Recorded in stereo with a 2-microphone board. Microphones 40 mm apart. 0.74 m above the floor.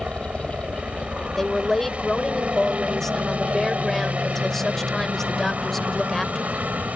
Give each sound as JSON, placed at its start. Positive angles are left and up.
{"t": 0.0, "sound": "a helicopter", "side_deg": -35}
{"t": 1.4, "sound": "a woman speaking", "side_deg": 10}